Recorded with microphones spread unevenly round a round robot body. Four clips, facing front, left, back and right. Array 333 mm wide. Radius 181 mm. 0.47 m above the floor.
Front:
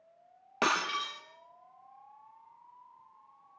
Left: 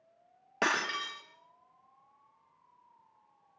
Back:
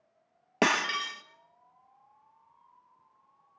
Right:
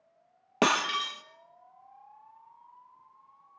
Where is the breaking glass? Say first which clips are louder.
Right 5 dB, back 3 dB; 130° right, 1.6 m.